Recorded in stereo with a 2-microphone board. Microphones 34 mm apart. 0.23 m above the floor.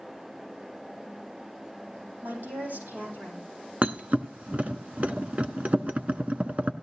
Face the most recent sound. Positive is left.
turn(degrees=-45)  # may be behind; listen again after turning